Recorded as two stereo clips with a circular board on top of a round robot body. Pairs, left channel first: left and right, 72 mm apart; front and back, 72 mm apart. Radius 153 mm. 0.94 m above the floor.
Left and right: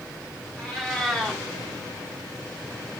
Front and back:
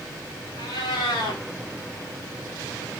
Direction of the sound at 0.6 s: 10° left.